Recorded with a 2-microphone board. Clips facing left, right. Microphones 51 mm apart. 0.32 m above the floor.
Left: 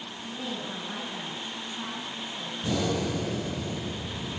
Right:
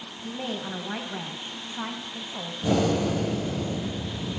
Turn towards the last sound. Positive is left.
turn(degrees=-30)  # may be behind; listen again after turning